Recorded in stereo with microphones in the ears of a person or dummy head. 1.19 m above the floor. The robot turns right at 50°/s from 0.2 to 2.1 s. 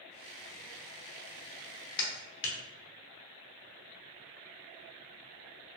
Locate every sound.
2.0 s a clap: 65° left (ahead or behind), 0.7 m; by 2.6 s 70° left (ahead or behind), 0.7 m